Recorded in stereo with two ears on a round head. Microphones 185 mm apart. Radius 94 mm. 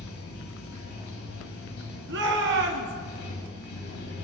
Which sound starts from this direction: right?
A shout, at 2.1 s.